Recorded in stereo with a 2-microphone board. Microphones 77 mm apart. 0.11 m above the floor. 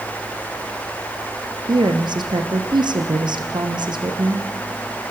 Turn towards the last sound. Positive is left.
turn(degrees=-75)  # may be behind; listen again after turning